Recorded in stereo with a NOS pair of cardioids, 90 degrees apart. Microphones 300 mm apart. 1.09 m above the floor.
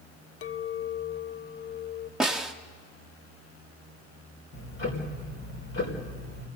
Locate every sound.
0.4 s a clink: 50° left, 0.7 m
2.2 s a snare drum: straight ahead, 1.5 m
4.5 s ticking: 45° left, 4.5 m